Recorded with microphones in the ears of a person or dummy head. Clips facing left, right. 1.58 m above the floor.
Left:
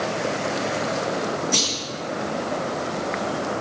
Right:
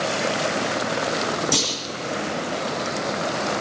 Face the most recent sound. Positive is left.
turn(degrees=-80)